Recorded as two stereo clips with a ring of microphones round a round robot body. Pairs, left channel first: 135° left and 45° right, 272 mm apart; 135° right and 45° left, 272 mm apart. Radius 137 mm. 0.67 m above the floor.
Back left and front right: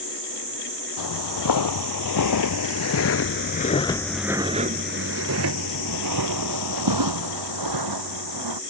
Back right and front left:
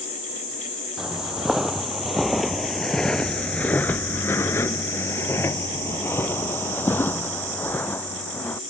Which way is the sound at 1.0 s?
135° left.